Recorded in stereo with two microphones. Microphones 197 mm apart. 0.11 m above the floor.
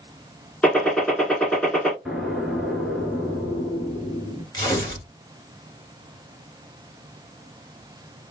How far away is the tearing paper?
About 1.9 m.